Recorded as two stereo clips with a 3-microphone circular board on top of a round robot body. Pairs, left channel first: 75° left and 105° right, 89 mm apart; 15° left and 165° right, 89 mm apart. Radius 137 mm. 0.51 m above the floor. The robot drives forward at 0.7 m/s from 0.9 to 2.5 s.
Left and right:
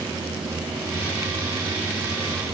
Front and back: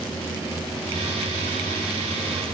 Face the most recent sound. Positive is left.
No sound to turn to.